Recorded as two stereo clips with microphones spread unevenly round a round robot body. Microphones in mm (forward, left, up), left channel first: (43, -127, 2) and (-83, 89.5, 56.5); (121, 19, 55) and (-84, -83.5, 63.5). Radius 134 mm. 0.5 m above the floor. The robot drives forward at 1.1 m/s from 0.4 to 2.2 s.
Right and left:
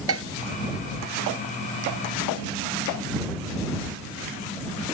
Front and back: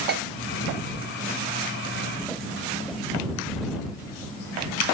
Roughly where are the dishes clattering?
Behind left.